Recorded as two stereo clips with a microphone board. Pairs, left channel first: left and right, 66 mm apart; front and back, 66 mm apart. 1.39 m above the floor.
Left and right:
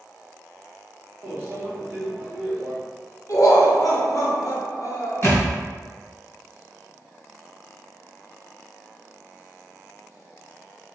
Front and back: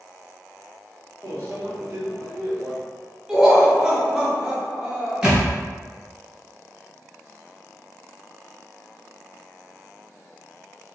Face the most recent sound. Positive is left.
turn(degrees=105)